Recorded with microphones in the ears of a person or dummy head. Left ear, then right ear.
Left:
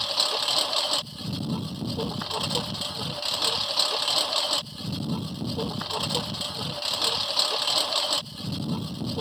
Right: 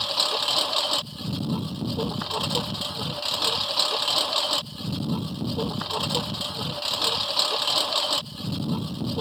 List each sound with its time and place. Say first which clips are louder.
0.0 s a lawn mower: right 1 dB; 10° left (ahead or behind)